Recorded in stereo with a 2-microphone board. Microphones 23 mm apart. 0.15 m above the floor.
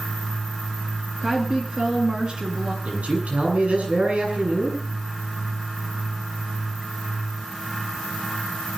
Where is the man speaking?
60° right (ahead or behind), 7.5 m.